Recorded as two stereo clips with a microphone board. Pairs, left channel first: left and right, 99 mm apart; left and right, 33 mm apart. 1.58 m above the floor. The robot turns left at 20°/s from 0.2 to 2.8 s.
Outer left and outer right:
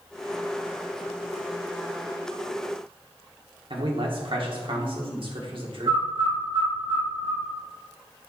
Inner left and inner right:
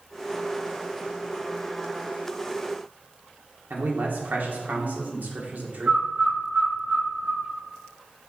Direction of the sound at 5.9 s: 55° right (ahead or behind).